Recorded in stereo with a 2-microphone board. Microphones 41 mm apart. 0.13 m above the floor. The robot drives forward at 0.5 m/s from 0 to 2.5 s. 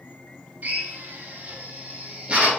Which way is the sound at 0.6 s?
40° right (ahead or behind).